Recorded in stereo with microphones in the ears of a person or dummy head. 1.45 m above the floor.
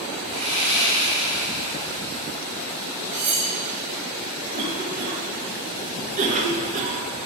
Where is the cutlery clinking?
45° right (ahead or behind), 3.5 m.